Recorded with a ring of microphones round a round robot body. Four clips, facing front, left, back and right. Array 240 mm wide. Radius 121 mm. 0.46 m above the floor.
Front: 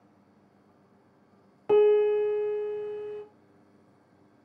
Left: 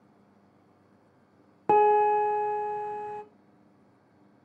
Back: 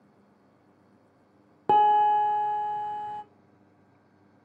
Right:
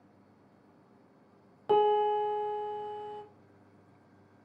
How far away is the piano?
About 0.5 m.